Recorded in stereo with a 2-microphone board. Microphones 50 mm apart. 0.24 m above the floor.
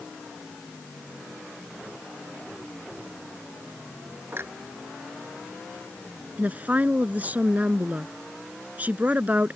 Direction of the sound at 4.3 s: 50° right (ahead or behind).